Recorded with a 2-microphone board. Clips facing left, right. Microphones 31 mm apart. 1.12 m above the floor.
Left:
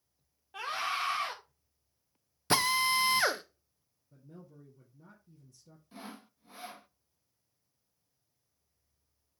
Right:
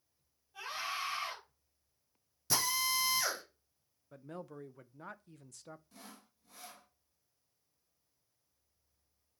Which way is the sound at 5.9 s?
30° left (ahead or behind).